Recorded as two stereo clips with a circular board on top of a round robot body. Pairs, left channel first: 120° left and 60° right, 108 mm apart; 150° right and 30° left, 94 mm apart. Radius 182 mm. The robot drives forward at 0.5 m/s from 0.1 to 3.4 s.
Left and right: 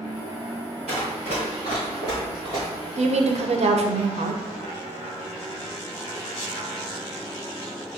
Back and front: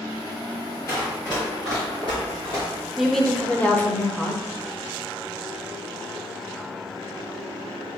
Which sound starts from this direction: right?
Running footsteps, at 0.9 s.